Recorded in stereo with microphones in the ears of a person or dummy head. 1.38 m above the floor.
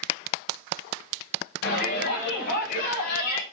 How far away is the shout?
About 7.5 m.